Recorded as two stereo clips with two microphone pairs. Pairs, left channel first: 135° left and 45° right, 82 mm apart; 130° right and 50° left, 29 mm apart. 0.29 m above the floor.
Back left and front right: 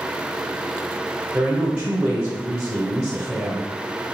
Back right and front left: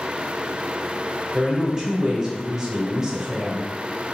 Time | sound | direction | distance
1.3 | a woman speaking | straight ahead | 0.9 m